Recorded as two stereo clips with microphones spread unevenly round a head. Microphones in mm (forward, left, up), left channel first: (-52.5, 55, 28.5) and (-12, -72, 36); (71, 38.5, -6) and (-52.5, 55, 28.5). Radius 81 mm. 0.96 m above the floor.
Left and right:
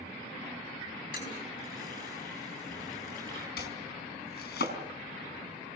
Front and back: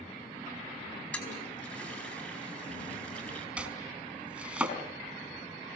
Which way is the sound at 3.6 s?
95° left.